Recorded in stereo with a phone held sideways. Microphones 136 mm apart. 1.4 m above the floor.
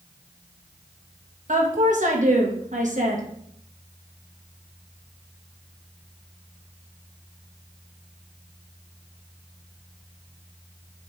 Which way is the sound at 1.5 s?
65° right (ahead or behind).